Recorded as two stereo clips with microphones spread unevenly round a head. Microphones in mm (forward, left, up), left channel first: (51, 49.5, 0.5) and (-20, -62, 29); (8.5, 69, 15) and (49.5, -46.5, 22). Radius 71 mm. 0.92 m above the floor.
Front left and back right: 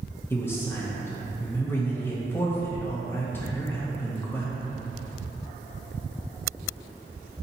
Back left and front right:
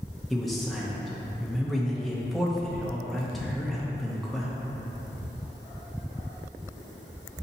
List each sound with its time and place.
0.3 s a man speaking: 25° left, 0.5 m